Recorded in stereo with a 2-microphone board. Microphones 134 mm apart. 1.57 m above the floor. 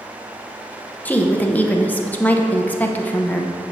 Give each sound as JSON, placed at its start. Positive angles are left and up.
{"t": 1.1, "sound": "a woman speaking", "side_deg": 15, "distance_m": 0.8}